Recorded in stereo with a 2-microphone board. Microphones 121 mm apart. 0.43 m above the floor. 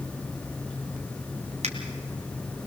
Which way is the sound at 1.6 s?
60° right (ahead or behind).